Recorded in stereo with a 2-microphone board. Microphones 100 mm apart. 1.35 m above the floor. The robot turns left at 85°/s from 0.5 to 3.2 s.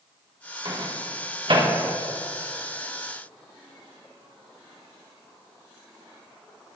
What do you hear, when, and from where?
0.7 s a microwave: 50° right (ahead or behind), 1.5 m; by 1.7 s 40° right (ahead or behind), 1.5 m